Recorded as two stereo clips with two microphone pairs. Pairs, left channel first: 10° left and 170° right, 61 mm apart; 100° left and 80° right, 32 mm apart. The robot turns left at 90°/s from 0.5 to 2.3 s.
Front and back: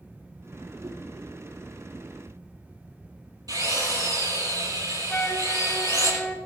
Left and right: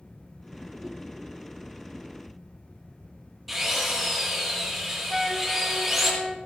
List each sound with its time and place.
0.8 s a whoosh: 140° right, 2.5 m; by 1.1 s 160° right, 2.5 m
3.5 s a drill: 165° right, 8 m
5.1 s a flute: 5° right, 1.0 m